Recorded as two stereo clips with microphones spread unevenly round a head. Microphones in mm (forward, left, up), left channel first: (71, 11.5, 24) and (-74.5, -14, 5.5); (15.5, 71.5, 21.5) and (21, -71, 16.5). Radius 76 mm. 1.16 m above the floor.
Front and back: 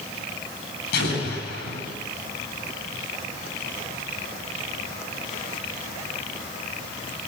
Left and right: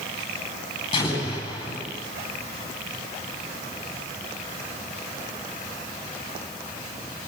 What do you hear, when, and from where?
0.9 s an explosion: 30° left, 9.5 m